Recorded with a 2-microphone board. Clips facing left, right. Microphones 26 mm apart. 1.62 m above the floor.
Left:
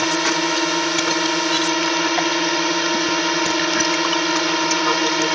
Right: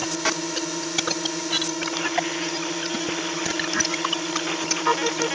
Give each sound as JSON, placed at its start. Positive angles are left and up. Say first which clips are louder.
{"t": 0.0, "sound": "a drone", "louder": "left 7 dB", "side_deg": 50}